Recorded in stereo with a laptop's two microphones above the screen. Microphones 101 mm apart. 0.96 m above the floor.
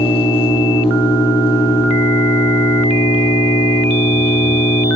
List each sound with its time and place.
0.0 s an engine running: 70° left (ahead or behind), 9 m